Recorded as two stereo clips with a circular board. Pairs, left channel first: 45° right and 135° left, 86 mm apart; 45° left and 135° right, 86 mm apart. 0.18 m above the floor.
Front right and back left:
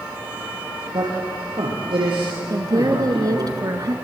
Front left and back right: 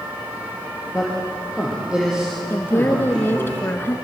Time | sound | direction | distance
0.9 | a man speaking | 145° left | 7.5 m
2.5 | a woman speaking | 105° left | 2 m